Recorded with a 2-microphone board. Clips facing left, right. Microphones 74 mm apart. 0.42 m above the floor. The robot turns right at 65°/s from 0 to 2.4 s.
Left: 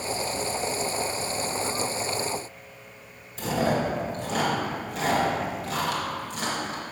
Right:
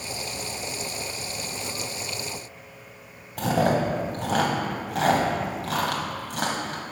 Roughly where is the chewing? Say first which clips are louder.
Right 3 dB; right.